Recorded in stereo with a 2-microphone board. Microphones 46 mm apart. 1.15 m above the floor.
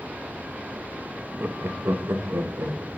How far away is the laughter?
About 0.5 m.